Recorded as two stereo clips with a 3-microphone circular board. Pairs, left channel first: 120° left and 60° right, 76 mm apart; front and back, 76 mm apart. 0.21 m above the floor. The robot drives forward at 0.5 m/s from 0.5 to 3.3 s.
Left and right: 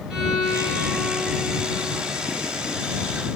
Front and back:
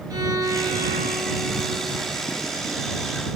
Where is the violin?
140° right, 2.5 m; by 2.1 s 150° right, 3.5 m.